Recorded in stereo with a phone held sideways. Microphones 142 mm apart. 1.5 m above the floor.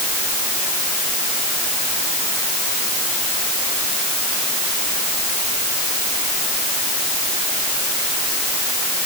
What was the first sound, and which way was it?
Only background noise.